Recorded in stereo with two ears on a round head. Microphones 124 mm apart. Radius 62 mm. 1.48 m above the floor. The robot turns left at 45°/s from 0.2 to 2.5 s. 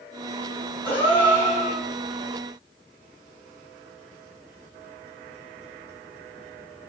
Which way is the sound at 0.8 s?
155° left.